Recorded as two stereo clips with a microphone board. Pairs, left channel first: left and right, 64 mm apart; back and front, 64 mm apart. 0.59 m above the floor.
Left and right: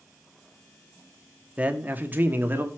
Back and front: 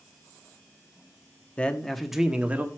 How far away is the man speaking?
About 0.9 m.